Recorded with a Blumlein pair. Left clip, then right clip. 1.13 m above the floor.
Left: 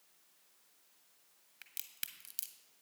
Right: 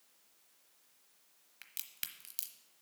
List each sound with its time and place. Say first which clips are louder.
1.6 s a crack: right 1 dB; 5° right, 0.9 m